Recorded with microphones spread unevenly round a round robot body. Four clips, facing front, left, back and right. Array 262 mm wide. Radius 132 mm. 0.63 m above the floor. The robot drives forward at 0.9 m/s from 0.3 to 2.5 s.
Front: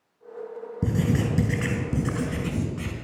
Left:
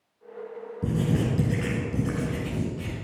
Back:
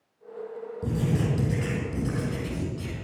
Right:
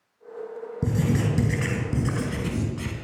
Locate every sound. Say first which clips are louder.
0.8 s writing: right 1 dB, front 3 dB; 30° right, 5.5 m; by 2.9 s 45° right, 4 m